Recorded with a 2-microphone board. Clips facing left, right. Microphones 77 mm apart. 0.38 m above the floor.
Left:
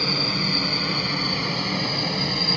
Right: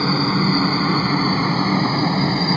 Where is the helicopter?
40° right (ahead or behind).